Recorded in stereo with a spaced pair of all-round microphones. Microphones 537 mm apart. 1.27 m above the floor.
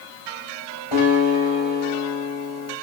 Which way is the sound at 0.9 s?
70° left (ahead or behind).